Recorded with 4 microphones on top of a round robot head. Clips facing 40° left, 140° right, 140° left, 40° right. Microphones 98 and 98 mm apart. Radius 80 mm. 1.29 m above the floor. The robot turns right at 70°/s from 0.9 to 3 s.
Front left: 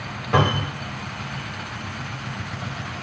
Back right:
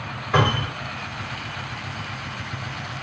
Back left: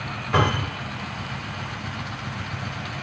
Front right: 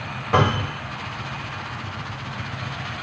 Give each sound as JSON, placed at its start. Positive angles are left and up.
{"t": 0.3, "sound": "a cupboard door", "azimuth_deg": 10, "distance_m": 1.9}